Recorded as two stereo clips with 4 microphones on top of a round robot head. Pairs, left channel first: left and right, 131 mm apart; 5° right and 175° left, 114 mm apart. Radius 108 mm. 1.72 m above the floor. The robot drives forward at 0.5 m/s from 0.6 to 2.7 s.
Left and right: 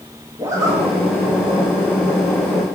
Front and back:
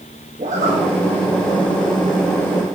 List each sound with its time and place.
0.4 s a zipper: 145° right, 1.4 m; by 0.8 s 150° right, 1.4 m